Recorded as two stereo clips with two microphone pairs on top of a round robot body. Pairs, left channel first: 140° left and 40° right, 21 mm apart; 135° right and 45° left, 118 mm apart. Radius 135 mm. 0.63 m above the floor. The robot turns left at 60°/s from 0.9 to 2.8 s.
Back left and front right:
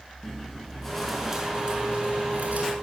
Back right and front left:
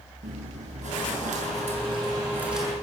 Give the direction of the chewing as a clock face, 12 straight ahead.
10 o'clock.